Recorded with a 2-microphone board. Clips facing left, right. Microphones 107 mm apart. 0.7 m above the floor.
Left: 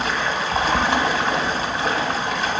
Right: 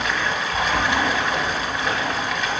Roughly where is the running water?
Left.